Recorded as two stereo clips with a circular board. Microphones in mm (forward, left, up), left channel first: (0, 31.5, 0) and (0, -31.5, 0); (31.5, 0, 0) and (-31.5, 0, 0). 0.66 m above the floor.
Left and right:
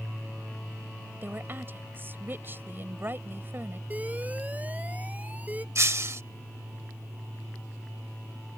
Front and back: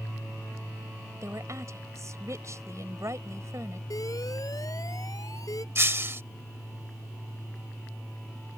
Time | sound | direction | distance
1.2 | a woman speaking | 145° right | ?
3.9 | an alarm | 25° right | ?
5.8 | breaking glass | 130° right | ?